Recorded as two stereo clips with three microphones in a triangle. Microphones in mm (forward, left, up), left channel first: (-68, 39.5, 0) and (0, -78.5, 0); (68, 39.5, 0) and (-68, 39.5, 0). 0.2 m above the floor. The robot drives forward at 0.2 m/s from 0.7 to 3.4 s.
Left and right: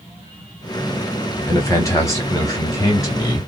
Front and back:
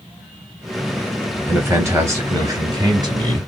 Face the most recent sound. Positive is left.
turn(degrees=160)